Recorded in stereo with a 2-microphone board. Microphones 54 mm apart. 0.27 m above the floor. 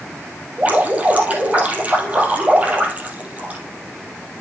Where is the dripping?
25° right (ahead or behind), 3 m.